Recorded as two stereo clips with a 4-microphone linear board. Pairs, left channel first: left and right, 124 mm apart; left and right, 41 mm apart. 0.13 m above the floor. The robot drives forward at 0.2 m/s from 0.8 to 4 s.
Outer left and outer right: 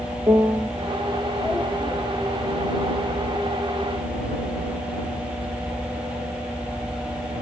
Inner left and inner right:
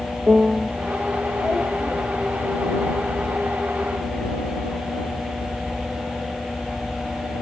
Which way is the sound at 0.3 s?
30° right (ahead or behind).